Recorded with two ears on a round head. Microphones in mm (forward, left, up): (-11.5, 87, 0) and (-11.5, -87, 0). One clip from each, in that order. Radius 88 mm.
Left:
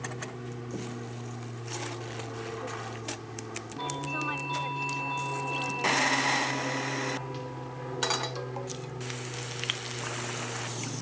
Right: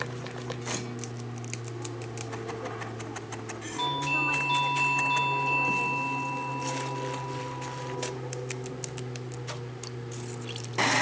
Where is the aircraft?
15° left (ahead or behind); by 11.0 s 20° left (ahead or behind).